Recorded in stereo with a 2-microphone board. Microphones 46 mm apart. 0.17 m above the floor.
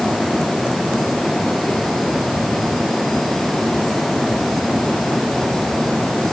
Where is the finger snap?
No finger snap in this recording.